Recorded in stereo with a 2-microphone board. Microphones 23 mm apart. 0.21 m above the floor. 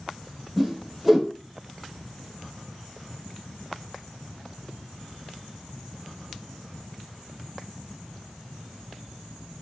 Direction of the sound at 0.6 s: 5° right (ahead or behind).